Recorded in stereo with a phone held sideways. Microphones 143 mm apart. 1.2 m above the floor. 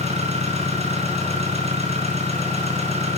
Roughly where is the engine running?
Right.